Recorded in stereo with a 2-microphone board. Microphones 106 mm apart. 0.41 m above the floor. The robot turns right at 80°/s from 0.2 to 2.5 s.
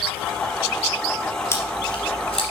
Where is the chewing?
25° left (ahead or behind), 3.5 m; by 2.4 s 65° left (ahead or behind), 3.5 m.